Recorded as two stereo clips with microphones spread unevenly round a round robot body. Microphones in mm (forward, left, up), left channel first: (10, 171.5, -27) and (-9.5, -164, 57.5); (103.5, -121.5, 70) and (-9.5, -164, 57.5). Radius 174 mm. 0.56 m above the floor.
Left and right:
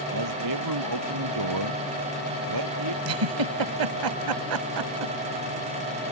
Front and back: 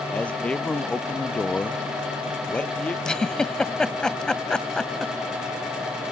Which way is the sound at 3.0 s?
65° right.